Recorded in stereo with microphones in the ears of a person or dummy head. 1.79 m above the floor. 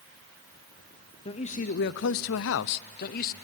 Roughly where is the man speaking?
Left.